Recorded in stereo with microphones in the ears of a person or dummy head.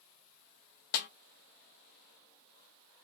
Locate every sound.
0.9 s a snare drum: 45° left (ahead or behind), 0.5 m